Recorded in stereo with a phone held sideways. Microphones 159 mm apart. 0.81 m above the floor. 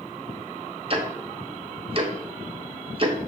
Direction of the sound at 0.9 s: 40° right (ahead or behind).